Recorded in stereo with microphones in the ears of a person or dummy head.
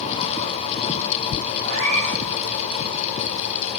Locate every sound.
1.6 s a cat meowing: 40° right (ahead or behind), 5 m